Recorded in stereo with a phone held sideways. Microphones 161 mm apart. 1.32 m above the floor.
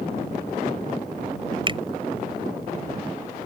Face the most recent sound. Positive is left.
turn(degrees=-30)  # may be behind; listen again after turning